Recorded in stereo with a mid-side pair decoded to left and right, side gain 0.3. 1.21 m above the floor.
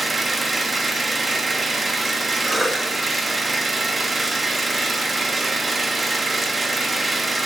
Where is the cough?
30° right, 5 m.